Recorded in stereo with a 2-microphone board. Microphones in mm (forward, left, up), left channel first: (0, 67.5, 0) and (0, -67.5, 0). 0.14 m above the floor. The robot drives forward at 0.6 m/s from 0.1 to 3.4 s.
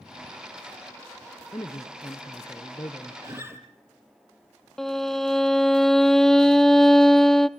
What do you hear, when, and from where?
1.5 s a man speaking: 30° left (ahead or behind), 1.6 m; by 3.1 s 20° left (ahead or behind), 2 m
3.2 s a guitar: 20° right (ahead or behind), 3 m
4.8 s a violin: 5° left (ahead or behind), 0.7 m